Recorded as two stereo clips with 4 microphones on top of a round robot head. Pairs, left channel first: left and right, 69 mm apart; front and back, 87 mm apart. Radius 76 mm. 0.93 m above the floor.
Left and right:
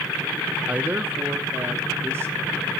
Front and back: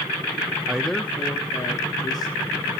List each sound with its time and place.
0.7 s a man speaking: 120° right, 0.8 m; by 2.7 s 35° right, 2.5 m